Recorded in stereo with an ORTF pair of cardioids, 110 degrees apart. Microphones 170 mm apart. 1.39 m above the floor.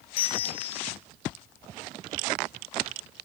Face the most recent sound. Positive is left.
turn(degrees=70)